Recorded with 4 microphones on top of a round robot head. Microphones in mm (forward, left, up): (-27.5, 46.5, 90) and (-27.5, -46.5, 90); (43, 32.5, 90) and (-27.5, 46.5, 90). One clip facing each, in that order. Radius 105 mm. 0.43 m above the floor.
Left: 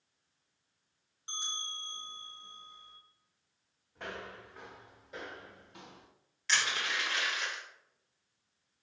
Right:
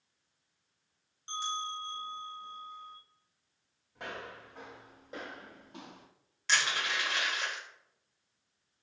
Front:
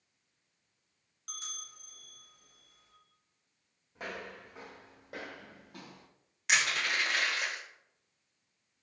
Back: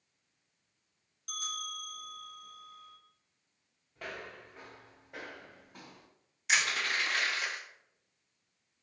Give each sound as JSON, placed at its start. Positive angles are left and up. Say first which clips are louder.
{"t": 1.3, "sound": "a bell", "louder": "right 9 dB, back 9 dB", "azimuth_deg": 15, "distance_m": 2.0}
{"t": 4.0, "sound": "footsteps", "louder": "even, front 1 dB", "azimuth_deg": -10, "distance_m": 1.7}
{"t": 6.5, "sound": "crushing", "louder": "right 2 dB, front 1 dB", "azimuth_deg": -35, "distance_m": 1.8}